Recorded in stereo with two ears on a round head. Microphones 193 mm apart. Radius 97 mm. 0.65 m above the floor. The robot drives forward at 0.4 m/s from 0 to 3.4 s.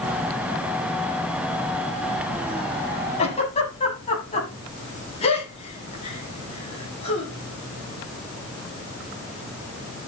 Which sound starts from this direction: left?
A giggle, at 3.2 s.